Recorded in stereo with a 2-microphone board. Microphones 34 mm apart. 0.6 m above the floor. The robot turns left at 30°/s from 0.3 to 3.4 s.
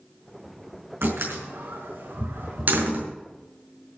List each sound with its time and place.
1.0 s a door slam: 75° right (ahead or behind), 4.5 m; by 3.1 s 45° right (ahead or behind), 4.5 m